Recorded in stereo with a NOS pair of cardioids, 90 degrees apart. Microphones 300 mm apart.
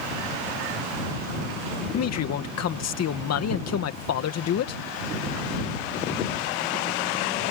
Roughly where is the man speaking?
Ahead left.